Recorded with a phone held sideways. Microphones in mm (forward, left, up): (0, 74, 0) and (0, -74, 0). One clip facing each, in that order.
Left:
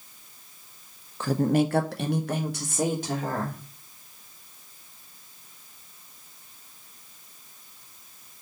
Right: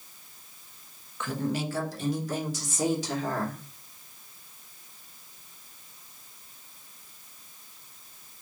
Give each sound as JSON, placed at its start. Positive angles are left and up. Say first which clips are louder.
{"t": 1.2, "sound": "a woman speaking", "louder": "left 8 dB", "side_deg": 35, "distance_m": 0.6}